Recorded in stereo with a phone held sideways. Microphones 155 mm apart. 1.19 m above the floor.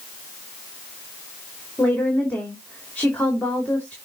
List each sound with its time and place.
1.8 s a woman speaking: 10° left (ahead or behind), 3 m